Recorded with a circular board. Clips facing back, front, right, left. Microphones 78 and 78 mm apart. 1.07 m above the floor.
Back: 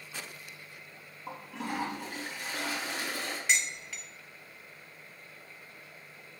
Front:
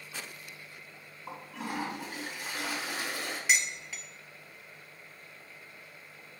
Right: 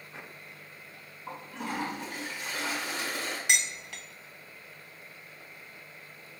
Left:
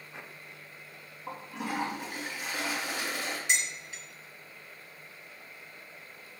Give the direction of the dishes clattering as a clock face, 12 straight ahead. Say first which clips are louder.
Front 2 dB, right 2 dB; 3 o'clock.